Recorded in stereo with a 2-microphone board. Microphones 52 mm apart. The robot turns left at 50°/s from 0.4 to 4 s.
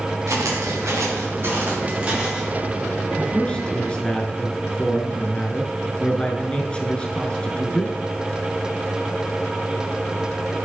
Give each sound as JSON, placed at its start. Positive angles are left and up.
{"t": 0.3, "sound": "footsteps", "side_deg": -85, "distance_m": 3.0}
{"t": 3.2, "sound": "a man speaking", "side_deg": 15, "distance_m": 1.1}